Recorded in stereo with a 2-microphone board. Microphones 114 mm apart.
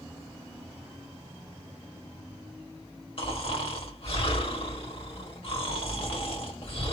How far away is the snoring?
About 2.0 m.